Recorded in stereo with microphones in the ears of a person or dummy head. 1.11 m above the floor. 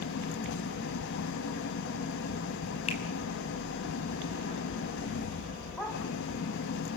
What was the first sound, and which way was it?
An engine running, 50° left (ahead or behind).